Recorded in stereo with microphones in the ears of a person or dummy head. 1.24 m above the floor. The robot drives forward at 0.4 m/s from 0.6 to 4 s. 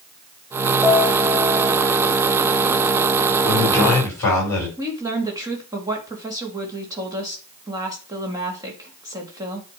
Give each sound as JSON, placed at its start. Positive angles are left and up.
{"t": 0.8, "sound": "a piano", "side_deg": -10, "distance_m": 2.5}
{"t": 3.4, "sound": "a man speaking", "side_deg": 20, "distance_m": 5.5}
{"t": 4.8, "sound": "a woman speaking", "side_deg": -15, "distance_m": 1.9}